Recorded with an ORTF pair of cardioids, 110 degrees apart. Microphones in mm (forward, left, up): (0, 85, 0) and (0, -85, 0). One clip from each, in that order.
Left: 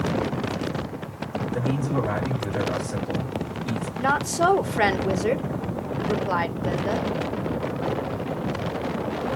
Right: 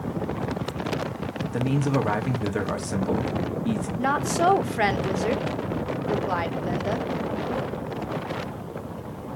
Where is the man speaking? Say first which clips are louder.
Right 2 dB; 55° right, 1.6 m.